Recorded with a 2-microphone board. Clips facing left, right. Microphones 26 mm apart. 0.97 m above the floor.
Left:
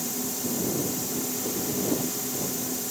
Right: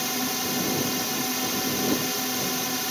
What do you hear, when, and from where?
0.0 s a drone: 45° right (ahead or behind)